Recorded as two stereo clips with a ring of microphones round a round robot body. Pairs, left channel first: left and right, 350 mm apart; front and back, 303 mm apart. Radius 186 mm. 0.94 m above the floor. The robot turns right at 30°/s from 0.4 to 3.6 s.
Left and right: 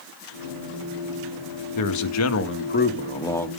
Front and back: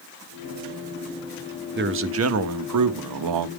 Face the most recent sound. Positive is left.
turn(degrees=180)